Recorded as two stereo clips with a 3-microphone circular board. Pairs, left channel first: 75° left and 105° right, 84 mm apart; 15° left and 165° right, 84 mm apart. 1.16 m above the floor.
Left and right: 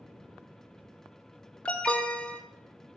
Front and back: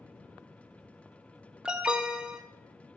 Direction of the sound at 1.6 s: 130° left.